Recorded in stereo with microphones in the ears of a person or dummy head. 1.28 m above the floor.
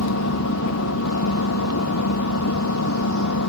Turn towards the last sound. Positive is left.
turn(degrees=70)  # may be behind; listen again after turning